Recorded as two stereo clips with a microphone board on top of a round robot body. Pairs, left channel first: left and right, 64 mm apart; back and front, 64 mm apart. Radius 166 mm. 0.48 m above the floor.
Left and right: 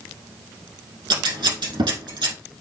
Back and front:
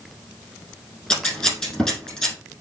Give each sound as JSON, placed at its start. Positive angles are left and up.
{"t": 1.1, "sound": "scissors", "azimuth_deg": -95, "distance_m": 4.5}